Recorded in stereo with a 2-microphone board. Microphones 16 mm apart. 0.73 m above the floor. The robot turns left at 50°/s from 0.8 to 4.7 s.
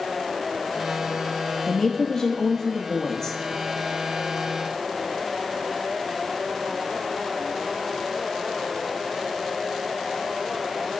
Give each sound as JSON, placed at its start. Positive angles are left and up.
{"t": 1.7, "sound": "a woman speaking", "azimuth_deg": 130, "distance_m": 0.6}